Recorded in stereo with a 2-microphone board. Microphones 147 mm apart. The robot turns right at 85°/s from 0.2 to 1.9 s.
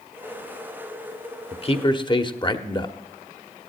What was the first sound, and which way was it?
A man speaking, 100° left.